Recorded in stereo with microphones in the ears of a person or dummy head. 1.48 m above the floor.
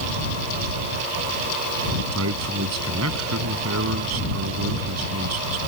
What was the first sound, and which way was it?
A man speaking, 85° right.